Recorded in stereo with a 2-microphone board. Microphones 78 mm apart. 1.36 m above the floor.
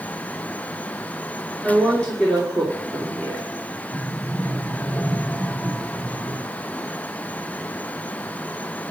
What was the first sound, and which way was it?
A woman speaking, centre (ahead or behind).